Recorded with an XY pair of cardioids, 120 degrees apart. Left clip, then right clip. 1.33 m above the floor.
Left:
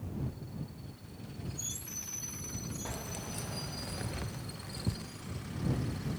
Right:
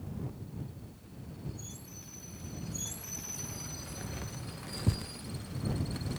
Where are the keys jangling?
60° left; by 6.2 s 60° right.